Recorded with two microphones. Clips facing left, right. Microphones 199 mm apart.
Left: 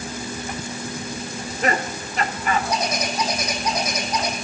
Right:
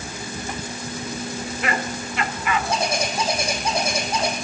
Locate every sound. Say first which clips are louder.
1.3 s laughter: left 4 dB; 40° left (ahead or behind), 1.2 m
2.7 s a bird: right 1 dB; 30° right (ahead or behind), 3 m